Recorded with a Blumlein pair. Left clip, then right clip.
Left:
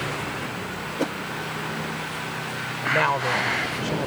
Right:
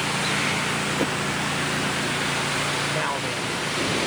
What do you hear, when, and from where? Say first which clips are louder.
1.0 s a whoosh: right 3 dB; straight ahead
2.9 s a woman speaking: left 4 dB; 15° left